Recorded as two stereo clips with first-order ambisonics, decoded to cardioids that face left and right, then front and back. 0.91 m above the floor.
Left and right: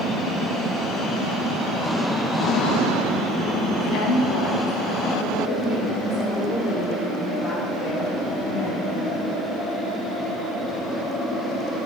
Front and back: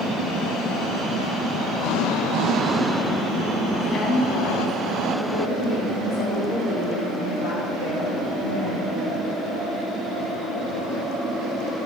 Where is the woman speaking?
65° left, 1.3 m; by 9.1 s 35° left, 8 m.